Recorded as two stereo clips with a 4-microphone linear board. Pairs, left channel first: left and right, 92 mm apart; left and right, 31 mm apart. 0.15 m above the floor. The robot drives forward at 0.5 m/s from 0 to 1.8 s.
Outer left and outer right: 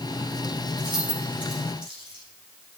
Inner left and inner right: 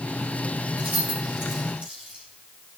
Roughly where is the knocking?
I don't hear knocking.